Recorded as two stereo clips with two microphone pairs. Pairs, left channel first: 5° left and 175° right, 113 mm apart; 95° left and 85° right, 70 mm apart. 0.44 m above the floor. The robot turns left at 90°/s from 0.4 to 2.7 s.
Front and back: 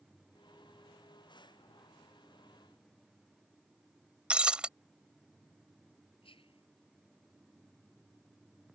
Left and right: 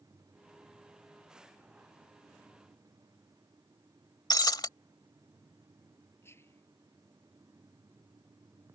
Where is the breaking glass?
105° left.